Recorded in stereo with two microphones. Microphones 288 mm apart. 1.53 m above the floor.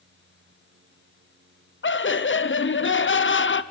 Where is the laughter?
40° left (ahead or behind), 0.7 m.